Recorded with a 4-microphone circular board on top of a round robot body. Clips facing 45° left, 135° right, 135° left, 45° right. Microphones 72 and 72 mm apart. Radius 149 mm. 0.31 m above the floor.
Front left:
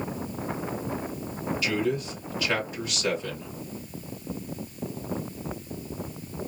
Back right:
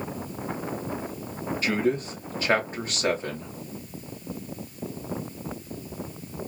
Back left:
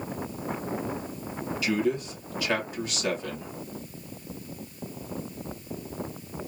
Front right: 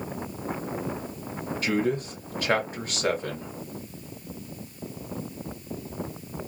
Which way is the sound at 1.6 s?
90° right.